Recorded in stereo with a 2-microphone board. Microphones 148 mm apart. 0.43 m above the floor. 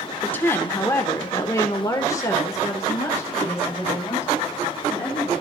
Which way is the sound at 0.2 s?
15° left (ahead or behind).